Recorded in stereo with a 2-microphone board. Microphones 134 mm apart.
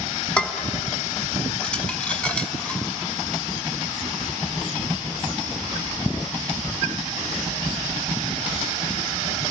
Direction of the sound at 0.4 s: 10° left (ahead or behind).